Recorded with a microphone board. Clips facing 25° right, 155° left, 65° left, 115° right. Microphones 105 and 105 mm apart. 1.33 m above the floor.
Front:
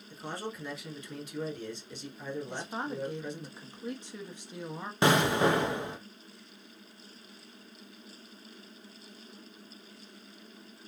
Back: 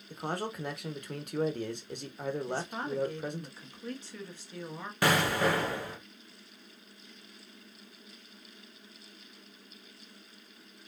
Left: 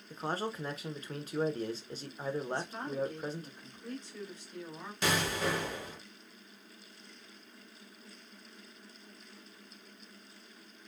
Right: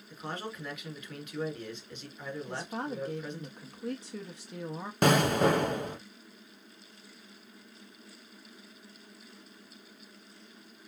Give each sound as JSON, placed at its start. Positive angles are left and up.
{"t": 0.1, "sound": "a man speaking", "azimuth_deg": 125, "distance_m": 0.9}
{"t": 2.5, "sound": "a woman speaking", "azimuth_deg": -95, "distance_m": 1.2}
{"t": 5.0, "sound": "an explosion", "azimuth_deg": -85, "distance_m": 0.7}